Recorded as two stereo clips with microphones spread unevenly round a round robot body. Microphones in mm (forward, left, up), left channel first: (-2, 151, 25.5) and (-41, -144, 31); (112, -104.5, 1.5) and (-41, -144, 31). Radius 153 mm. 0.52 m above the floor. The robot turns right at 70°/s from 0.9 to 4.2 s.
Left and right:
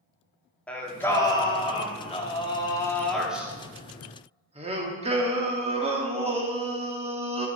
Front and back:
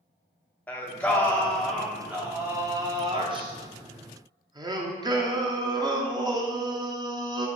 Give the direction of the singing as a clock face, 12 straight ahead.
12 o'clock.